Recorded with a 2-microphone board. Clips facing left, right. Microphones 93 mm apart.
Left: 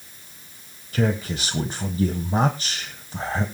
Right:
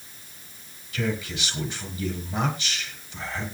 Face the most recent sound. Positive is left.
turn(degrees=40)  # may be behind; listen again after turning